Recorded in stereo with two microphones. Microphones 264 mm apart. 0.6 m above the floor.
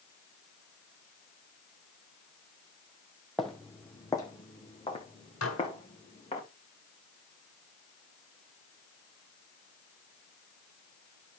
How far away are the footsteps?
About 1.1 m.